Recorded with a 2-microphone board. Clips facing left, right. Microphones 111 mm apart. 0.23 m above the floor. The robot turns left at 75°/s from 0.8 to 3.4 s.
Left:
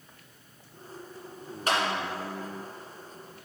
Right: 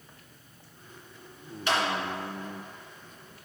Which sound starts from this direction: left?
A clap, at 1.7 s.